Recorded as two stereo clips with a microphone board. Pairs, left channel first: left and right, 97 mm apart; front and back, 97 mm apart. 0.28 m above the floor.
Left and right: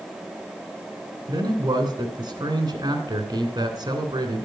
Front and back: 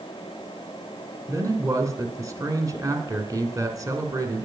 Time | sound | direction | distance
1.3 | a man speaking | 130° right | 2.5 m